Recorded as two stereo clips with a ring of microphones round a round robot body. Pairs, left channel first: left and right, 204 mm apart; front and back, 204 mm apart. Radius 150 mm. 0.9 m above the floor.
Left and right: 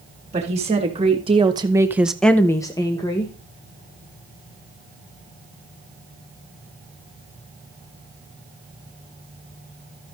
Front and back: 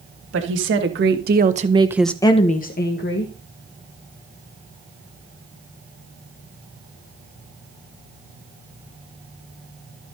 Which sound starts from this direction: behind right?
A woman speaking, at 0.3 s.